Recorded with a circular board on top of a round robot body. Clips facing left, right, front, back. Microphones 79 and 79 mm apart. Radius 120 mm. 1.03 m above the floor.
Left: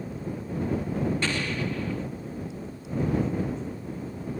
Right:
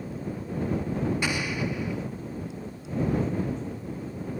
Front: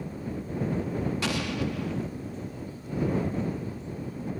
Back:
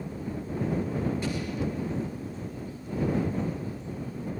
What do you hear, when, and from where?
1.2 s an explosion: 10° right